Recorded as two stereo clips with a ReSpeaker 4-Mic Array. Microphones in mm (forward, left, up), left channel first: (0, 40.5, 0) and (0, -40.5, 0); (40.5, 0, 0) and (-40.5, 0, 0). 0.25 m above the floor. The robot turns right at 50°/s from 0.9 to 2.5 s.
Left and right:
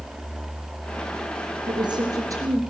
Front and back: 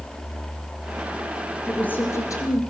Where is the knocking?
No knocking in this recording.